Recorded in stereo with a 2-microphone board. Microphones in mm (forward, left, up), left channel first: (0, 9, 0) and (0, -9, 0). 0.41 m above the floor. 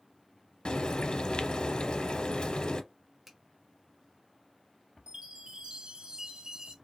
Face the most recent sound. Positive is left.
turn(degrees=-60)  # may be behind; listen again after turning